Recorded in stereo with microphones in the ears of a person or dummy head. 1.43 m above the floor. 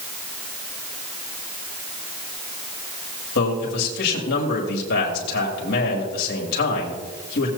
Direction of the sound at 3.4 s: 55° left (ahead or behind).